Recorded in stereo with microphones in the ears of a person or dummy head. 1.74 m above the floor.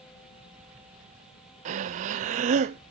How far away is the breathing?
About 0.6 m.